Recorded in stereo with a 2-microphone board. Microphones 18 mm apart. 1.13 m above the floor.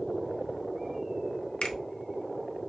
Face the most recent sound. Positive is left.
turn(degrees=60)  # may be behind; listen again after turning